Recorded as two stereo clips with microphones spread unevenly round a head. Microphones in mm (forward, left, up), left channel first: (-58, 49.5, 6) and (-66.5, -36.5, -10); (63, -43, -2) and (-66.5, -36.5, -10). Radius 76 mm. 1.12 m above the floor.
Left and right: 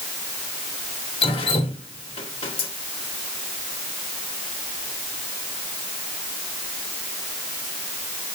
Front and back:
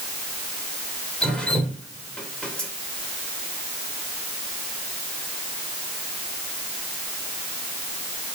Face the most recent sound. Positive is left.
turn(degrees=80)